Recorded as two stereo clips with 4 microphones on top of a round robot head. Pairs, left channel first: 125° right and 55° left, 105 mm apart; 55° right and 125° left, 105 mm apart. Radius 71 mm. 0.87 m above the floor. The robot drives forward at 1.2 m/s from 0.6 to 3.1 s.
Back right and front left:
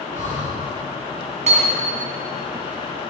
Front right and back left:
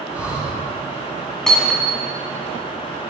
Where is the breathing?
50° left, 5.5 m.